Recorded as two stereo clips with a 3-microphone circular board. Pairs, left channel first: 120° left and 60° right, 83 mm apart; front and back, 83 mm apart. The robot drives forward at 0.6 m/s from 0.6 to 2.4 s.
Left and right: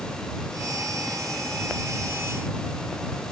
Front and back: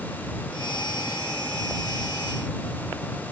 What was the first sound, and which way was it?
Only background noise.